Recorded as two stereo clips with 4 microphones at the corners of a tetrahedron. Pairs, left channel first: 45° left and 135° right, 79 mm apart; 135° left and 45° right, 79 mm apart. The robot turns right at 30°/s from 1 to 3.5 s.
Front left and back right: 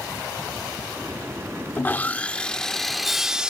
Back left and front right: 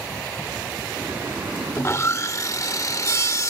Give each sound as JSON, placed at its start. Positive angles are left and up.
{"t": 1.8, "sound": "sawing", "azimuth_deg": 100}